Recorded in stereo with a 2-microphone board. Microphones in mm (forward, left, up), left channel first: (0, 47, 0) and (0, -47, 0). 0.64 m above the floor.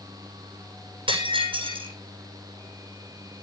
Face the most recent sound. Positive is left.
turn(degrees=-65)  # may be behind; listen again after turning